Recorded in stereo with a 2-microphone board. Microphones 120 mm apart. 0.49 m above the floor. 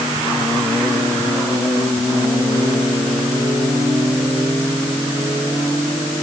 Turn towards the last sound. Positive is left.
No sound to turn to.